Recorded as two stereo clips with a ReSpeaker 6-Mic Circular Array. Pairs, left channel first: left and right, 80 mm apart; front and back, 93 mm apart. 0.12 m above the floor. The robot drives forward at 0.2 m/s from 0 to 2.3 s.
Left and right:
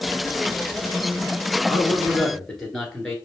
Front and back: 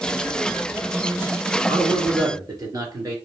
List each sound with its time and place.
1.7 s a man speaking: 170° left, 1.9 m